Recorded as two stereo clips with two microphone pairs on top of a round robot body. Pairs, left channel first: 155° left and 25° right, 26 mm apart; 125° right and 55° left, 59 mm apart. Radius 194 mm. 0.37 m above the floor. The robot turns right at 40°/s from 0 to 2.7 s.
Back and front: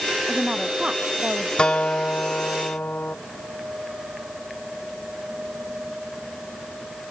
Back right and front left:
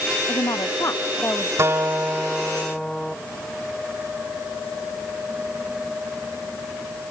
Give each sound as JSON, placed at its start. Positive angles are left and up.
{"t": 0.3, "sound": "a woman speaking", "azimuth_deg": -105}
{"t": 1.6, "sound": "a guitar", "azimuth_deg": 100}